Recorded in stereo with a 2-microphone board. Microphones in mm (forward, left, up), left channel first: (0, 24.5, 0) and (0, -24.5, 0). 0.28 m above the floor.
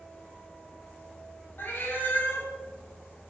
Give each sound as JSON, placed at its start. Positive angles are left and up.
{"t": 1.6, "sound": "a cat meowing", "side_deg": 40, "distance_m": 1.1}